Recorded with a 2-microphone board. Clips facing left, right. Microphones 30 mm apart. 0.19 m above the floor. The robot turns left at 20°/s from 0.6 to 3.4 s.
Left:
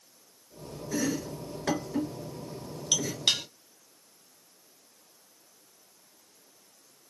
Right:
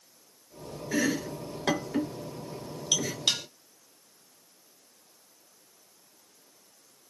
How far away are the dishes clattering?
About 0.7 m.